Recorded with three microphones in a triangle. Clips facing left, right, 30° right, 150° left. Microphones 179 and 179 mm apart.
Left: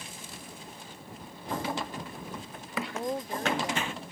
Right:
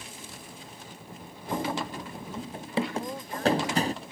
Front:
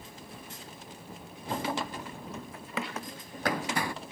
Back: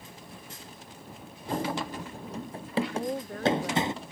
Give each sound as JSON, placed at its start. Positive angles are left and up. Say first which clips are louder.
{"t": 1.5, "sound": "running footsteps", "louder": "right 3 dB, back 2 dB", "azimuth_deg": -165}
{"t": 2.9, "sound": "a woman speaking", "louder": "left 2 dB, back 10 dB", "azimuth_deg": 155}